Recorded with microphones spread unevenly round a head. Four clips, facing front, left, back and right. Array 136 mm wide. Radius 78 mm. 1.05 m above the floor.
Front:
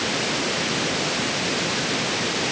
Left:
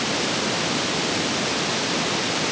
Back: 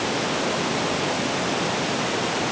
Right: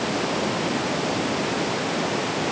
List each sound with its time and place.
Only background noise.